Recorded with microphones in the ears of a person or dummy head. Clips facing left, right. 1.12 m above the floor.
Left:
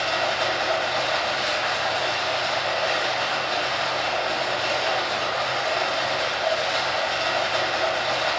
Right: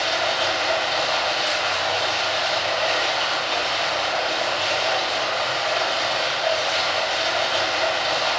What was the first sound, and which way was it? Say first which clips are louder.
Running water: right 1 dB; 15° right (ahead or behind).